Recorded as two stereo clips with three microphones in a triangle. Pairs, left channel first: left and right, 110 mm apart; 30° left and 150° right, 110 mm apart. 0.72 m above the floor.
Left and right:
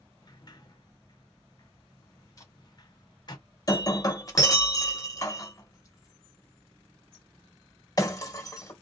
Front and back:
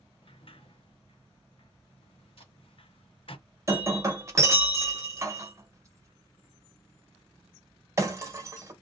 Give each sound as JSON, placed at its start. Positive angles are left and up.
{"t": 0.2, "sound": "a sliding door", "azimuth_deg": 50, "distance_m": 0.5}
{"t": 2.4, "sound": "tape being pulled", "azimuth_deg": 40, "distance_m": 1.7}
{"t": 3.7, "sound": "breaking glass", "azimuth_deg": 150, "distance_m": 0.9}